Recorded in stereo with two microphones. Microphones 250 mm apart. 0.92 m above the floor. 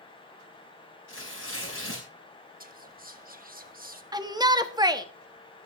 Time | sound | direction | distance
1.1 | tearing paper | 55° left (ahead or behind) | 4.5 m
2.6 | whispering | 35° right (ahead or behind) | 1.4 m
4.1 | a shout | 15° right (ahead or behind) | 1.1 m